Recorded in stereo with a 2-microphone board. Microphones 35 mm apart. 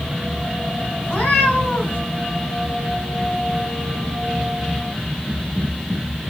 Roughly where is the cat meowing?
Left.